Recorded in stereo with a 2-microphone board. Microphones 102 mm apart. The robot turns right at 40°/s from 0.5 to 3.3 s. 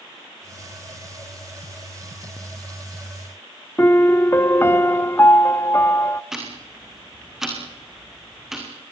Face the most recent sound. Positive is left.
turn(degrees=-5)  # may be behind; listen again after turning